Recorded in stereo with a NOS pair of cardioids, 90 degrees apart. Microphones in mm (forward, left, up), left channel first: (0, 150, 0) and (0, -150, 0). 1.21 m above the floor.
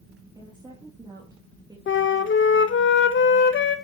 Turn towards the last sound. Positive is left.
turn(degrees=40)